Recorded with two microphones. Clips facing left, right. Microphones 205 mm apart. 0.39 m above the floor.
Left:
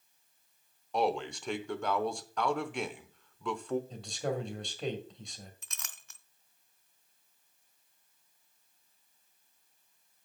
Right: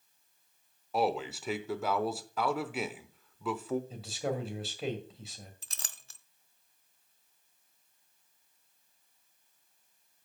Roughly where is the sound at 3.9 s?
Centre.